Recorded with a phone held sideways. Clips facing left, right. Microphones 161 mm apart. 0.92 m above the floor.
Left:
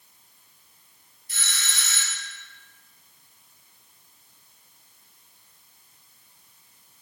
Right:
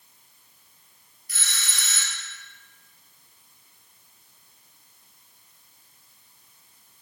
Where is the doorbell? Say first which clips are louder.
Left 1 dB; 25° left (ahead or behind), 3 m.